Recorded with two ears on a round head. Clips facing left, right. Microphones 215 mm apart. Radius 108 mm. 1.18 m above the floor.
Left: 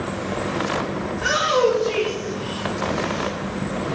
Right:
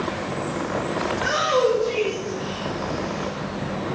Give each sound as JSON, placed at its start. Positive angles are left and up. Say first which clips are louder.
{"t": 1.1, "sound": "a shout", "louder": "left 1 dB", "side_deg": 50, "distance_m": 3.0}